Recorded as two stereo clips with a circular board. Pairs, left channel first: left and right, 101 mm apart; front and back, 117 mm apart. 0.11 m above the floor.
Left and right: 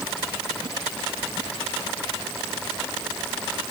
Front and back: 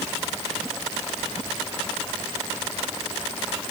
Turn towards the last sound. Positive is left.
No sound to turn to.